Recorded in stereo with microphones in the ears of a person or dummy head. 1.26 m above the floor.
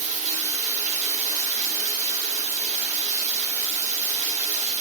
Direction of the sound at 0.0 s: 35° right (ahead or behind).